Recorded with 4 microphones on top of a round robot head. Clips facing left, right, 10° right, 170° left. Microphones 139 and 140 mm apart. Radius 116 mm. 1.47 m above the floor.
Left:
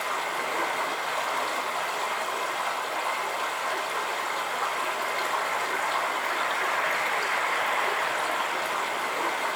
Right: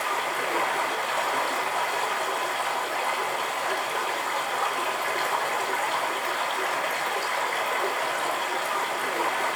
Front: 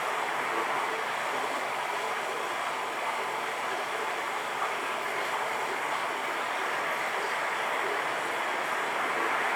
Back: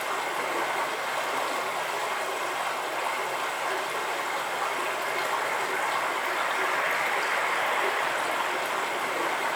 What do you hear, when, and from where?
0.0 s running water: 125° right, 5 m